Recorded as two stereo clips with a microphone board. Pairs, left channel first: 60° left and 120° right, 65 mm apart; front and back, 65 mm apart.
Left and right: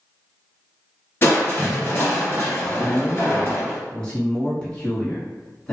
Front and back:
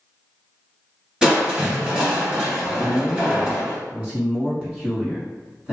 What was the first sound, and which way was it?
Crushing, 105° left.